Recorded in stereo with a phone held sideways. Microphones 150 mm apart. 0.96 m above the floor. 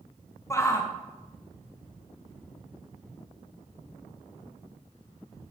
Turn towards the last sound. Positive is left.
turn(degrees=20)  # may be behind; listen again after turning